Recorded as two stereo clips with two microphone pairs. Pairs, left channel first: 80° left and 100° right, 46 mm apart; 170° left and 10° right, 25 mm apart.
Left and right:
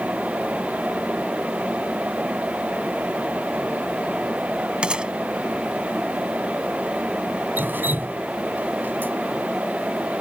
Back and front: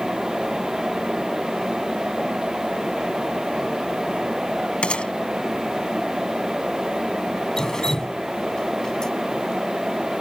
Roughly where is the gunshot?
Behind.